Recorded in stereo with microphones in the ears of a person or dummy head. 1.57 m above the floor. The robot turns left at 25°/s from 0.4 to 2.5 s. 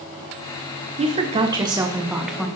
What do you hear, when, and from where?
1.0 s a woman speaking: 145° right, 1.1 m; by 2.5 s straight behind, 1.1 m